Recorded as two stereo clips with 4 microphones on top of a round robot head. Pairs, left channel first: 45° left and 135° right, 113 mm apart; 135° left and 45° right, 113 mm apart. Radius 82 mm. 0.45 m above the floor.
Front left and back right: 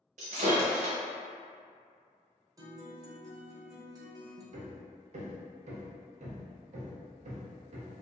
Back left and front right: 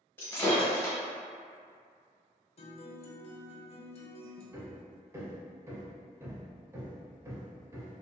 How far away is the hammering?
About 0.5 m.